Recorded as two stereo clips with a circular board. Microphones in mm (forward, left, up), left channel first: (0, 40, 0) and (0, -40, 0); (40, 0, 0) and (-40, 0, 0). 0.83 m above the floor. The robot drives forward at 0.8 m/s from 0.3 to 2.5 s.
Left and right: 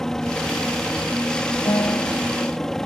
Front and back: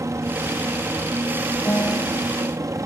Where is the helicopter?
170° left.